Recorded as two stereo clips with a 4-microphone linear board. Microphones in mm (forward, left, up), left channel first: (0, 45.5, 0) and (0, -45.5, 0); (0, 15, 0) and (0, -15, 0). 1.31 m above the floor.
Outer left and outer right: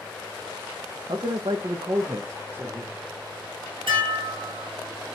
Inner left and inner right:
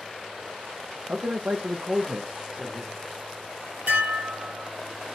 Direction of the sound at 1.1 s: 60° right (ahead or behind).